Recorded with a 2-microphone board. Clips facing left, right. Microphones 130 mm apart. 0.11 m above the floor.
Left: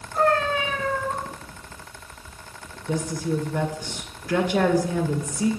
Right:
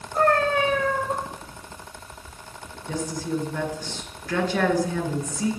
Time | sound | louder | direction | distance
0.2 | a cat meowing | right 1 dB | 50° right (ahead or behind) | 1.5 m
2.9 | a woman speaking | left 2 dB | 15° left (ahead or behind) | 1.7 m